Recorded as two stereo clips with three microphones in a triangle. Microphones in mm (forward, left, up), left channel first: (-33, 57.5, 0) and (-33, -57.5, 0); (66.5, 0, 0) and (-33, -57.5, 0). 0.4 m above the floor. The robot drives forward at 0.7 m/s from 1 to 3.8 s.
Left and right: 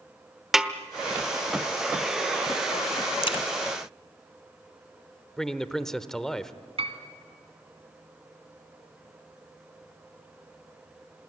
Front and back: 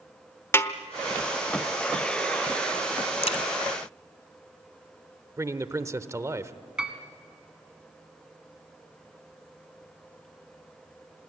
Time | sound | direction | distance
0.5 | a snare drum | 10° right | 1.0 m
3.2 | a crack | 55° left | 1.4 m
5.4 | a man speaking | 170° left | 1.0 m
6.8 | a piano | 65° right | 1.9 m